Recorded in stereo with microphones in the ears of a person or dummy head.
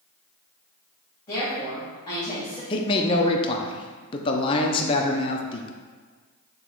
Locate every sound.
1.3 s a woman speaking: 25° left (ahead or behind), 2.5 m
2.7 s a man speaking: 20° left (ahead or behind), 0.6 m